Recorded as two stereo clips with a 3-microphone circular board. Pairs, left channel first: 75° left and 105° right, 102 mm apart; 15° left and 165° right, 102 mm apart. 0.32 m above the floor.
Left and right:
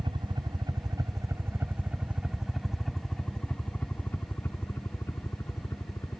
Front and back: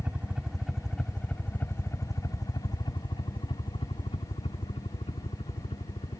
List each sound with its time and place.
0.0 s a helicopter: 95° right; by 6.2 s 15° left